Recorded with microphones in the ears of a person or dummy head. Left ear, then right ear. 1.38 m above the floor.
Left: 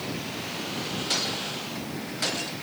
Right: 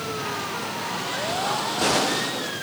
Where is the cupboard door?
No cupboard door in this recording.